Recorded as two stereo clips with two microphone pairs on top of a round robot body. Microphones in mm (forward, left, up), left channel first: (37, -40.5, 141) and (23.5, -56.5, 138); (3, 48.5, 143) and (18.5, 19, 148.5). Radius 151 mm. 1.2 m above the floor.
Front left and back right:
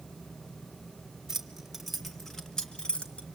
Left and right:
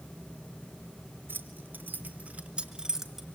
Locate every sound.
1.3 s keys jangling: 55° right, 2 m; by 3.2 s 20° left, 2 m